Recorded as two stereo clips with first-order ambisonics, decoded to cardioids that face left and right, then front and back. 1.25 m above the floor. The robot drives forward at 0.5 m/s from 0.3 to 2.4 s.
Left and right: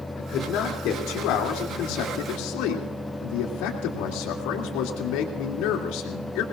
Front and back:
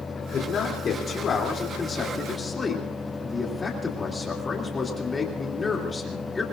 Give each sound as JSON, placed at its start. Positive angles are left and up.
{"t": 0.2, "sound": "a man speaking", "azimuth_deg": 55, "distance_m": 3.0}